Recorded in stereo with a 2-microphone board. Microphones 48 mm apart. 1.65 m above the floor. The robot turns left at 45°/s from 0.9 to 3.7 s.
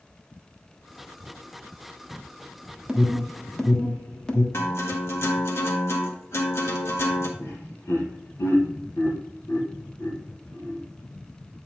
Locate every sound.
2.9 s an alarm: 15° right (ahead or behind), 1.2 m; by 4.4 s 15° left (ahead or behind), 1.2 m
4.5 s a guitar: 65° left (ahead or behind), 1.8 m
7.4 s laughter: 80° left, 2 m